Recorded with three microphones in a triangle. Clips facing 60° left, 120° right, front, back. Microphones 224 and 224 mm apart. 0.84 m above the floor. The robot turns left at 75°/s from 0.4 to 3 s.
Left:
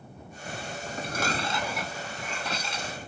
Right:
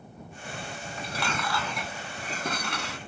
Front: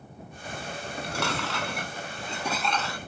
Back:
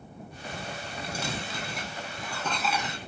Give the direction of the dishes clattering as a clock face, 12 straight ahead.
11 o'clock.